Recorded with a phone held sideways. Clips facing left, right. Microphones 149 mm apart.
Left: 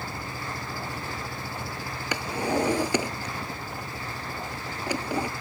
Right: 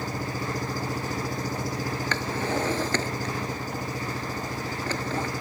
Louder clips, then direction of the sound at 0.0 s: Right 5 dB; 40° right (ahead or behind).